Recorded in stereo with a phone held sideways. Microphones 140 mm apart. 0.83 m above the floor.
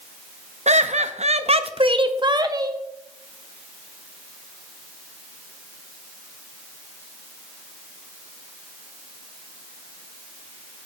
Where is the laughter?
55° right (ahead or behind), 0.6 m; by 2.8 s 25° right (ahead or behind), 1.1 m.